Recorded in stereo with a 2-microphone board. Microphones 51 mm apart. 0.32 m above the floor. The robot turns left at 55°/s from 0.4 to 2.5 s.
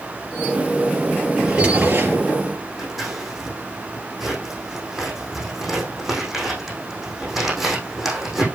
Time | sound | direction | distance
1.4 | a drawer | 10° right | 4 m
2.8 | scissors | 5° right (ahead or behind) | 6 m